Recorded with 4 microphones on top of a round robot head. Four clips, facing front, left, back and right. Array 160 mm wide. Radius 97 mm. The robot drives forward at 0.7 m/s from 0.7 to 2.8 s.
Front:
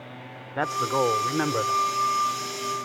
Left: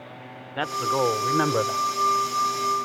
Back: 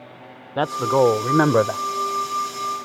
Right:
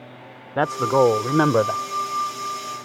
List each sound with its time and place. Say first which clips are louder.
0.6 s a man speaking: right 6 dB, back 6 dB; 125° right; by 1.8 s 150° right